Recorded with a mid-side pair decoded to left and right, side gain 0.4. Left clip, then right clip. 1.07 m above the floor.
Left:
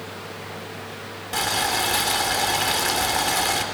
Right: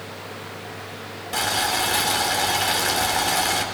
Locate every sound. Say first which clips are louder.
1.3 s boiling: even; 5° left, 4 m